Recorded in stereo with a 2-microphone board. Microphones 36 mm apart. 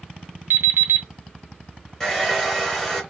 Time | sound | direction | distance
0.5 | an alarm clock | 70° right (ahead or behind) | 0.5 m
2.0 | a hair dryer | 10° left (ahead or behind) | 1.4 m